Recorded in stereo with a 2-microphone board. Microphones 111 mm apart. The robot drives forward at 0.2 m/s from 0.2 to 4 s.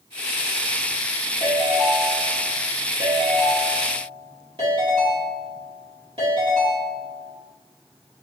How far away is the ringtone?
About 1.6 m.